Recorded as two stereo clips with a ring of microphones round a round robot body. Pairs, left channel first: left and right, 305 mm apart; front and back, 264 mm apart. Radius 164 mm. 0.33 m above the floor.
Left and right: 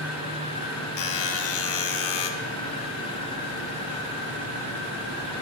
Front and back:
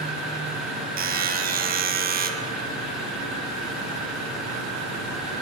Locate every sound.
1.0 s a buzzer: 125° left, 0.6 m